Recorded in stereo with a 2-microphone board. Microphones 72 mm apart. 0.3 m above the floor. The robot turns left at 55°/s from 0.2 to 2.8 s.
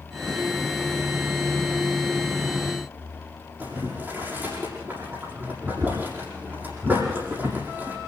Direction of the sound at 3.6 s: 30° right (ahead or behind).